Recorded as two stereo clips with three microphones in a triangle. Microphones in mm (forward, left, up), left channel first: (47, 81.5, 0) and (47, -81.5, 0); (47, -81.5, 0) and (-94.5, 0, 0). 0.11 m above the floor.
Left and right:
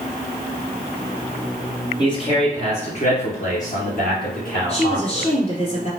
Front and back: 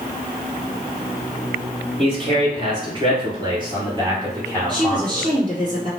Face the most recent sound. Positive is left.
turn(degrees=105)